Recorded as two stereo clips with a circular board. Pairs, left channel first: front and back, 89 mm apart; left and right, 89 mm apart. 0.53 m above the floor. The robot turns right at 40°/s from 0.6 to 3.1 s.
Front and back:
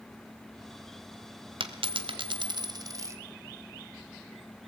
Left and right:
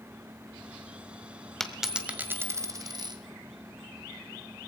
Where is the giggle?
No giggle in this recording.